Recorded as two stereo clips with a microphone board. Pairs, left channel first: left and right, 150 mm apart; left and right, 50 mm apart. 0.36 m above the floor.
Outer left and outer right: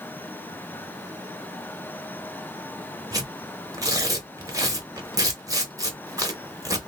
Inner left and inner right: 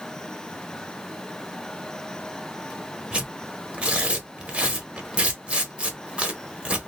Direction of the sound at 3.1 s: 25° right (ahead or behind).